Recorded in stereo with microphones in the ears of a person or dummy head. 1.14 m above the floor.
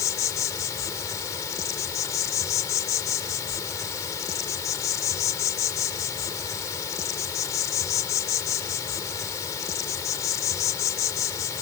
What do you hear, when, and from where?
0.0 s an insect: 20° left (ahead or behind)